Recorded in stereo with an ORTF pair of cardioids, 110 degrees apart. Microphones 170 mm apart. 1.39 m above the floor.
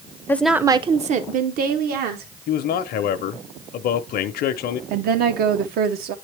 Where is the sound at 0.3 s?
15° left, 0.6 m; by 2.3 s 70° right, 1.8 m.